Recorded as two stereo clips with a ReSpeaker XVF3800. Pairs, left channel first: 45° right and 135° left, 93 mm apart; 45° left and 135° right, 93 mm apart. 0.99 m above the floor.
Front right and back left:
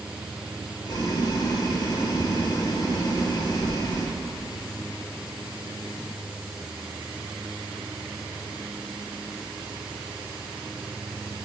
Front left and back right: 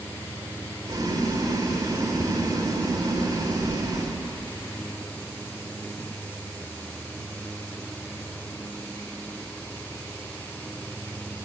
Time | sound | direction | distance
0.8 | boiling | 85° right | 1.8 m